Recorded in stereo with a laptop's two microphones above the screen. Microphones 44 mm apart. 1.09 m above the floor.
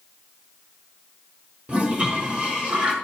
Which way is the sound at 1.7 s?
30° right (ahead or behind).